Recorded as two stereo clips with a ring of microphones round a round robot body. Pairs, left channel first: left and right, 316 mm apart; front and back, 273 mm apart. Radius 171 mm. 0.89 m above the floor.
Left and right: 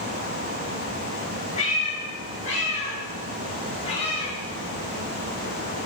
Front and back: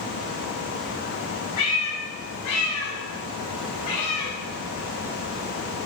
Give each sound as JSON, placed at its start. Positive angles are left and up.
{"t": 1.6, "sound": "a cat meowing", "azimuth_deg": 20, "distance_m": 4.0}